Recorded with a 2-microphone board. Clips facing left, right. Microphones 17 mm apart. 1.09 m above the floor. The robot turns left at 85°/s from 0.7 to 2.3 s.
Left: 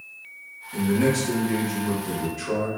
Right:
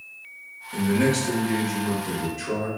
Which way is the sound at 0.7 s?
60° right.